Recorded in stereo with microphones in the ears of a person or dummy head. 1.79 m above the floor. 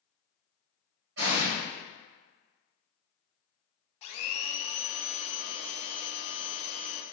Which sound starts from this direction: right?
An explosion, at 1.2 s.